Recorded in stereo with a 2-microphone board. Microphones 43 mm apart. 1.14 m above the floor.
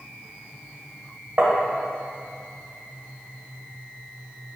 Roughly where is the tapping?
Right.